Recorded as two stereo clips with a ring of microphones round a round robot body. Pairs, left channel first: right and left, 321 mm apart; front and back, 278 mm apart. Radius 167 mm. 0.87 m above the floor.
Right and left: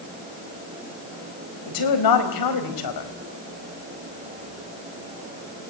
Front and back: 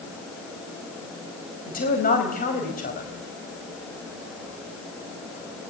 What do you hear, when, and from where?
1.7 s a woman speaking: 65° right, 4.5 m